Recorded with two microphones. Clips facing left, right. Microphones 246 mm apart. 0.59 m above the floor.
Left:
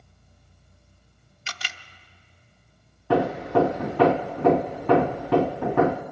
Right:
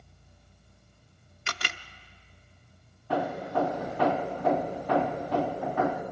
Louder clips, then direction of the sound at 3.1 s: Left 9 dB; 75° left (ahead or behind).